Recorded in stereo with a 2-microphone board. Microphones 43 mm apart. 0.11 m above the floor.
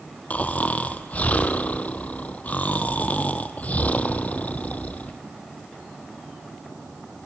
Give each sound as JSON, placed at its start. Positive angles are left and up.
{"t": 0.3, "sound": "snoring", "side_deg": 40, "distance_m": 0.7}